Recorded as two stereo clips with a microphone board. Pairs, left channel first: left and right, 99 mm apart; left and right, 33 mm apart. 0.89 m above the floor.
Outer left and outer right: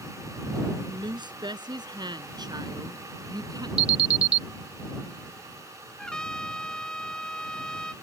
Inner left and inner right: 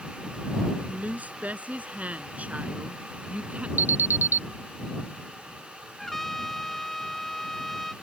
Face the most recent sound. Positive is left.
turn(degrees=10)  # may be behind; listen again after turning